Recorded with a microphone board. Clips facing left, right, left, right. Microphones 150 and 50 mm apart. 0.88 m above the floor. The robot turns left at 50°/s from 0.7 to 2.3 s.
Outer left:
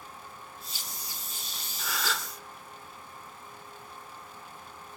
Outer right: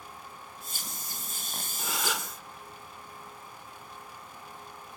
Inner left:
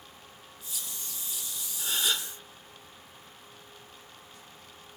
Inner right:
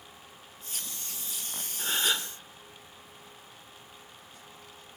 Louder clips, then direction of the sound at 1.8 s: Even, inner right 1 dB; 25° right (ahead or behind).